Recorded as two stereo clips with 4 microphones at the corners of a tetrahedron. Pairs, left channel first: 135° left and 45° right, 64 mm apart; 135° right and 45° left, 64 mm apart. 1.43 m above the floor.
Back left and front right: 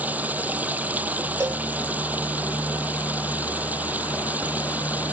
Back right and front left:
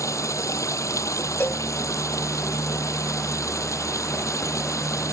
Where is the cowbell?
80° right.